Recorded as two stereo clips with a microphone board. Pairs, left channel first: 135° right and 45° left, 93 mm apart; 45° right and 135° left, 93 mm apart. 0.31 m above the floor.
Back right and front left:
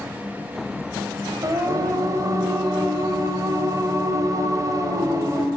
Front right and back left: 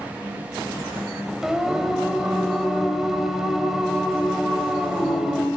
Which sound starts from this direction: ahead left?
Singing, at 1.4 s.